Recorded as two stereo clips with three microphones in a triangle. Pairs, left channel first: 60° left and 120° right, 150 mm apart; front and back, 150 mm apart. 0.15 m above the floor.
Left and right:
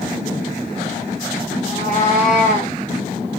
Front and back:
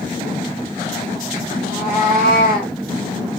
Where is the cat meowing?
35° left, 2.5 m; by 2.7 s 20° left, 2 m.